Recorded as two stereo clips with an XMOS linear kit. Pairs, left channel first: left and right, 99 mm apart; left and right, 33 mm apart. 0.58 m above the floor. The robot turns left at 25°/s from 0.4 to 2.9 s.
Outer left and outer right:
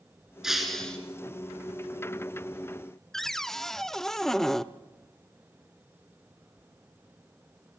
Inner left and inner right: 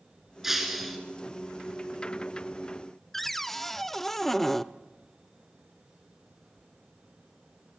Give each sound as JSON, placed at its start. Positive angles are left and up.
{"t": 0.4, "sound": "breaking glass", "side_deg": -5, "distance_m": 2.5}
{"t": 3.1, "sound": "a cupboard door", "side_deg": 5, "distance_m": 0.6}